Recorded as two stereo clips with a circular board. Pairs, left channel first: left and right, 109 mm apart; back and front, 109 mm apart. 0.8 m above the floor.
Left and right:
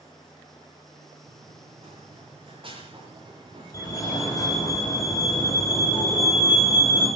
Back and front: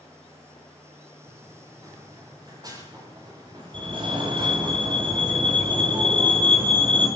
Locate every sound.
1.2 s running footsteps: 60° right, 9 m; by 4.7 s 40° right, 8 m
3.7 s a fire alarm: 35° left, 8 m